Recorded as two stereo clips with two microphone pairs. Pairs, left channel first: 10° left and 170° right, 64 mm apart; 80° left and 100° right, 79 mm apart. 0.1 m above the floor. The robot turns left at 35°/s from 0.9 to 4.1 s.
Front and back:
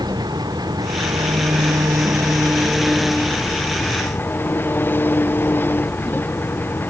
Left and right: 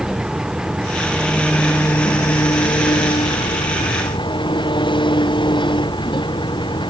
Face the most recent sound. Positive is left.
turn(degrees=70)